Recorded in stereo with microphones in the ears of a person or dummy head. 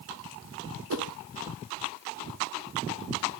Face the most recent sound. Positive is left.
turn(degrees=-60)  # may be behind; listen again after turning